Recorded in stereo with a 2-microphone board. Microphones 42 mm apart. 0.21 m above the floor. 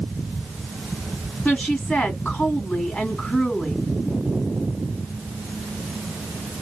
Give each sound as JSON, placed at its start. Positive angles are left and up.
{"t": 1.4, "sound": "a woman speaking", "side_deg": 30, "distance_m": 1.4}